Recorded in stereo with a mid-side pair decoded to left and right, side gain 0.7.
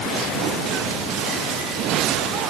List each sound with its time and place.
Only background noise.